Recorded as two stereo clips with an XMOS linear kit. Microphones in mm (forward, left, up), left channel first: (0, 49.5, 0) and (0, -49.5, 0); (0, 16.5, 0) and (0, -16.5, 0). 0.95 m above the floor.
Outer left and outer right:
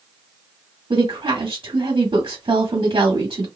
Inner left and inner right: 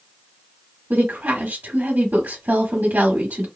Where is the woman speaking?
60° right (ahead or behind), 1.5 m.